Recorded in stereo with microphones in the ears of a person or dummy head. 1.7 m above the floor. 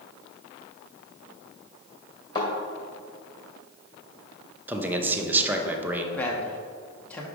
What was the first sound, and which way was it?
A thud, 25° left (ahead or behind).